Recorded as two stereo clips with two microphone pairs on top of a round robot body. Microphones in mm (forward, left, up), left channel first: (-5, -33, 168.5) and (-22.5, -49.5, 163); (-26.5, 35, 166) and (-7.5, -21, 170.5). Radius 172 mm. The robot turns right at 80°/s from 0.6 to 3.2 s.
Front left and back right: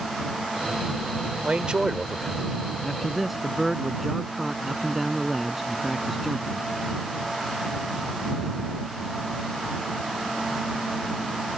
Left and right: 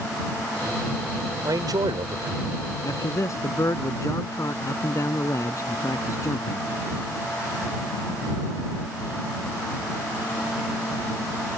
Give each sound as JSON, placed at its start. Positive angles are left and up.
{"t": 1.4, "sound": "a man speaking", "azimuth_deg": -105}
{"t": 2.8, "sound": "a man speaking", "azimuth_deg": 110}